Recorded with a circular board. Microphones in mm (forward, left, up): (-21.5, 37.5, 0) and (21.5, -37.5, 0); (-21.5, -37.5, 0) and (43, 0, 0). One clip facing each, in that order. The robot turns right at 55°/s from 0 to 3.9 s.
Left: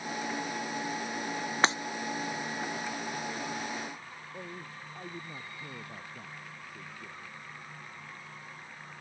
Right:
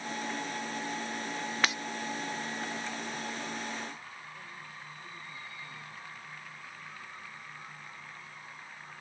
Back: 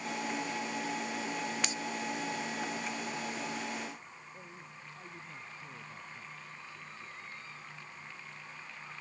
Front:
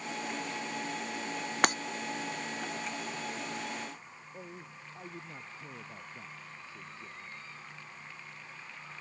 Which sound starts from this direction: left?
A man speaking, at 4.3 s.